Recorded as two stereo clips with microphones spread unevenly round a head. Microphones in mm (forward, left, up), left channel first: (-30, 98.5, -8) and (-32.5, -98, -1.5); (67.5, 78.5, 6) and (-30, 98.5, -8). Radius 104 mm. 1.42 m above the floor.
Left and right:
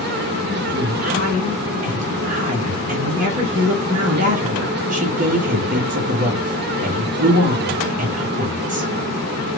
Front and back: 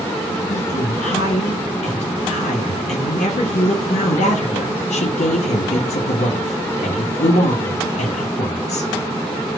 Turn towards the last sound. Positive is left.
turn(degrees=-35)